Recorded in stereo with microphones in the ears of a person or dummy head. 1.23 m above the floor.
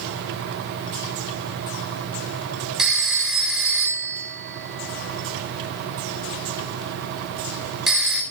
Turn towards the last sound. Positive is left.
turn(degrees=0)  # may be behind; listen again after turning